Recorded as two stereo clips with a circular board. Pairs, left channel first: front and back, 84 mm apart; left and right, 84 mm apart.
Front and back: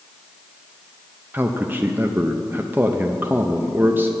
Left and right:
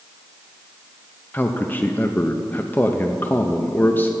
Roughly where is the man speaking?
Behind left.